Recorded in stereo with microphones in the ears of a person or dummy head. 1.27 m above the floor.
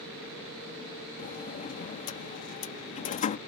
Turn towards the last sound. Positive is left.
turn(degrees=45)  # may be behind; listen again after turning